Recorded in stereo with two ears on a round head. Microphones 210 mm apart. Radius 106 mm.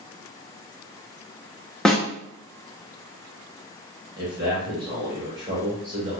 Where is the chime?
I don't hear a chime.